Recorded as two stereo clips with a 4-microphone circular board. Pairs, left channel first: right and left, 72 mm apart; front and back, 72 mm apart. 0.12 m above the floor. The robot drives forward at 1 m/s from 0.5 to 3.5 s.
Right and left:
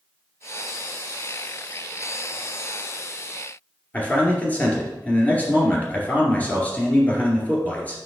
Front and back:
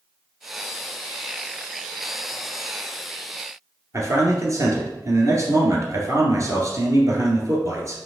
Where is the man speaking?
150° right, 2 m.